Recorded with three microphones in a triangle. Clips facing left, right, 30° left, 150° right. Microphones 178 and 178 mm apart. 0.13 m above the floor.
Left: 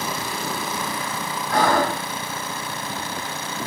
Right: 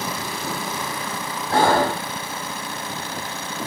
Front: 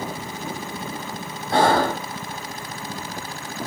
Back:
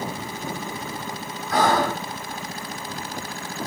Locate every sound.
1.5 s breathing: 30° right, 2.5 m